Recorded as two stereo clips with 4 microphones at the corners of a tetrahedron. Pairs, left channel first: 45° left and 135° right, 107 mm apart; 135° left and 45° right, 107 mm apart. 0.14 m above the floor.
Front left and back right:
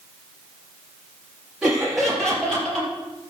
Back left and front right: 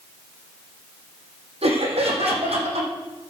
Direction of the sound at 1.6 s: 50° right.